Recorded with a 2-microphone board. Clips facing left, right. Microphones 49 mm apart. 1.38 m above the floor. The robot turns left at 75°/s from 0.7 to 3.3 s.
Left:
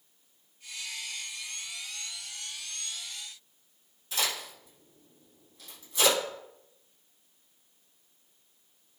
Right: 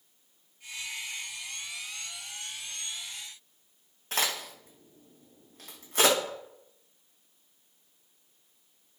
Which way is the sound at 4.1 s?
55° right (ahead or behind).